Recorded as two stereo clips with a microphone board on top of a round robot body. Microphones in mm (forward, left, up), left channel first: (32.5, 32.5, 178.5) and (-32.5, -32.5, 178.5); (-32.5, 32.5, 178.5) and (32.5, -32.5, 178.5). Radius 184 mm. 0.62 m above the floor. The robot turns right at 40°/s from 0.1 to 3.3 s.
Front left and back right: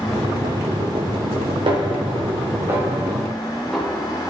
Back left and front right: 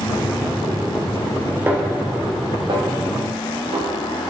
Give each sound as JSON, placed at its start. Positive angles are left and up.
{"t": 1.7, "sound": "a snare drum", "azimuth_deg": -110, "distance_m": 3.0}